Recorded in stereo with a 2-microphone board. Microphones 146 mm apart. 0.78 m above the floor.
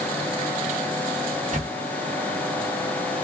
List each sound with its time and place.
1.5 s a camera shutter: 50° right (ahead or behind), 1.2 m